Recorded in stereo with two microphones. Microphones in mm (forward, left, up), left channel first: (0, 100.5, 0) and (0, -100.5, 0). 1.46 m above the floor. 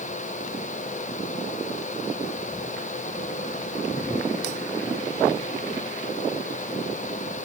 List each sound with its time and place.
Only background noise.